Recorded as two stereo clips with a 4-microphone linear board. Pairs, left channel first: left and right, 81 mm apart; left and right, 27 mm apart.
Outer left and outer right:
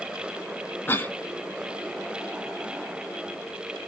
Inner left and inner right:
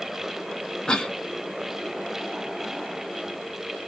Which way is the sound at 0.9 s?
25° left (ahead or behind).